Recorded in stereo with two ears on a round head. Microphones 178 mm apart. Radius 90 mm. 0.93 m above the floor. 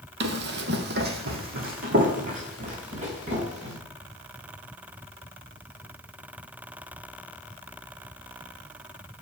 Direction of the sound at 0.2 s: 60° right (ahead or behind).